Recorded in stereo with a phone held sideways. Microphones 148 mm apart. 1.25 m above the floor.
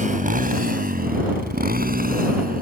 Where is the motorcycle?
60° right (ahead or behind); by 2.6 s 75° right (ahead or behind).